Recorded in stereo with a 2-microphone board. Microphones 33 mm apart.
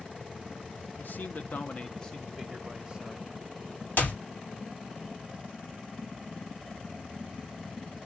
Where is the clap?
65° left (ahead or behind), 1.9 m.